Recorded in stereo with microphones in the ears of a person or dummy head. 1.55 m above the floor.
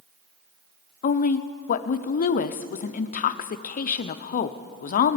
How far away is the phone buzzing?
I don't hear a phone buzzing.